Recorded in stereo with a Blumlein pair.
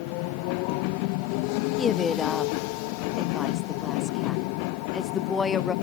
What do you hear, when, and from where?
1.8 s a woman speaking: 15° left, 0.5 m